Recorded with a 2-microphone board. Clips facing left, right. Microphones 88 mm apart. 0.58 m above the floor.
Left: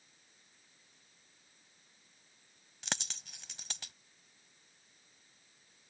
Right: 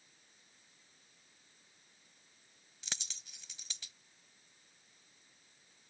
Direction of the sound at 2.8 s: 70° left (ahead or behind).